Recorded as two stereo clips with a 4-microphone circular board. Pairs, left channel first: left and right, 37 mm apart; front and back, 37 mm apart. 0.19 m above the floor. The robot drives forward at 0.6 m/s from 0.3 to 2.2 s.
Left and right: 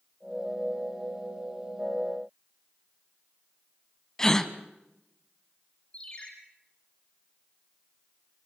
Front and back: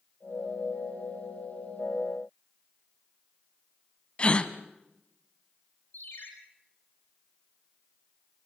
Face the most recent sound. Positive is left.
turn(degrees=30)